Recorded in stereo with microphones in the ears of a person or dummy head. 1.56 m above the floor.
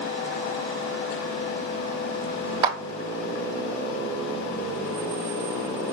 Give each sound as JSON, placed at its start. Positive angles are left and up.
{"t": 2.6, "sound": "a clap", "side_deg": -20, "distance_m": 0.5}